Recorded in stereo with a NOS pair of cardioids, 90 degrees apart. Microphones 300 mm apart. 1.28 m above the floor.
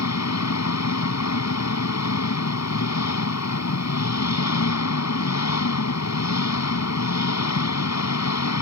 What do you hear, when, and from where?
0.0 s an engine running: 65° left